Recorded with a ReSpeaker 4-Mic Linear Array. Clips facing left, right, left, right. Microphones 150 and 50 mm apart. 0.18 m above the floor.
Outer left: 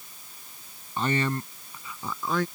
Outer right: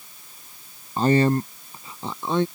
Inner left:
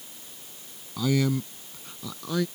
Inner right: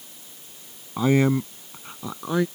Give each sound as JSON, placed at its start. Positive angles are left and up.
{"t": 1.0, "sound": "a man speaking", "side_deg": -35}